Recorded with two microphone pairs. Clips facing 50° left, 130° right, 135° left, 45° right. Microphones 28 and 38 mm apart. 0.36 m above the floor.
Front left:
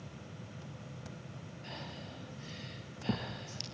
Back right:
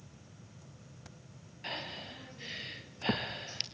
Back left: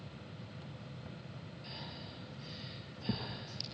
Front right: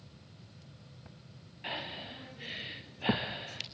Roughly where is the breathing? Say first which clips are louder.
Back right 7 dB, front right 11 dB; right.